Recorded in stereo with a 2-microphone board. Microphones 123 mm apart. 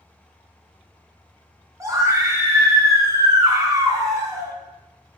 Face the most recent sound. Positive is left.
turn(degrees=-25)  # may be behind; listen again after turning